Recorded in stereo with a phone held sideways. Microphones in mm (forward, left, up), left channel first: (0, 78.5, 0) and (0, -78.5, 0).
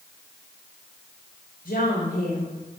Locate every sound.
1.6 s a woman speaking: 80° left, 3.5 m